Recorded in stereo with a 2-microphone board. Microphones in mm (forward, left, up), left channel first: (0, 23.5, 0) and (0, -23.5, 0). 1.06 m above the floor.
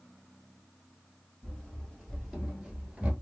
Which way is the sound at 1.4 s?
15° left (ahead or behind).